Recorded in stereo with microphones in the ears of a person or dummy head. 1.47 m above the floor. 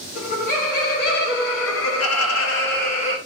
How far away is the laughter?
About 1.5 m.